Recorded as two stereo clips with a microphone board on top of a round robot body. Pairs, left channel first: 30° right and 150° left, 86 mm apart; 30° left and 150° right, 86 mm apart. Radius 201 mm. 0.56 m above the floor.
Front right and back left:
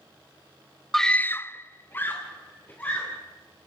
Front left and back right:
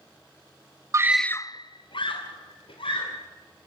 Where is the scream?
115° right, 0.7 m; by 3.2 s 40° left, 3 m.